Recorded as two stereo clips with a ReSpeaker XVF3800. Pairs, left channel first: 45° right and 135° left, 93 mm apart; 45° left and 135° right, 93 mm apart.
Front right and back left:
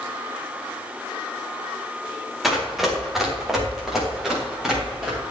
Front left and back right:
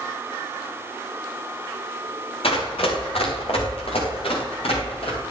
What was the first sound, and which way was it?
Running footsteps, 45° left.